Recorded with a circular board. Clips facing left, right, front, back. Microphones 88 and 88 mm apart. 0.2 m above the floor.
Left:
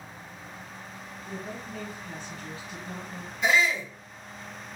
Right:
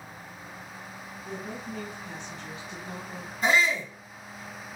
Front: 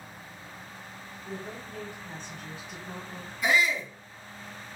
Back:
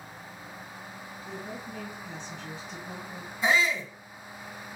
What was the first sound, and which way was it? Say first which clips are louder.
A woman speaking: right 1 dB, even; 75° right.